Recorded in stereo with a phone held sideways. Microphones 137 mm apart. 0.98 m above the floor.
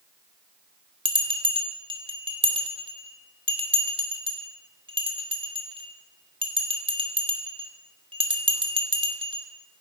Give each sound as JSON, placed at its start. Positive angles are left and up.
{"t": 1.1, "sound": "a bell", "side_deg": -40, "distance_m": 2.0}